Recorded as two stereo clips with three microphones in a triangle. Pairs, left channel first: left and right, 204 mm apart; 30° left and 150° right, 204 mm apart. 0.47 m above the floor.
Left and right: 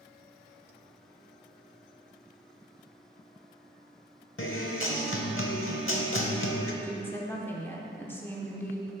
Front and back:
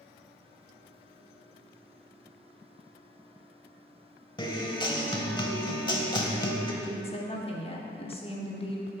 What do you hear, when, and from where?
4.4 s a guitar: 95° left, 0.8 m
6.8 s a woman speaking: 25° left, 0.9 m